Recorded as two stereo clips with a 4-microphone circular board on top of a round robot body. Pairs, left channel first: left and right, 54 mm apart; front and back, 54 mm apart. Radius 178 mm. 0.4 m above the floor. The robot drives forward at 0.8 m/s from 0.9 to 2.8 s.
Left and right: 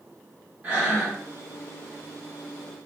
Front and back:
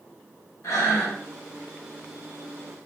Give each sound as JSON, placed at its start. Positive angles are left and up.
{"t": 0.6, "sound": "breathing", "azimuth_deg": -25, "distance_m": 1.7}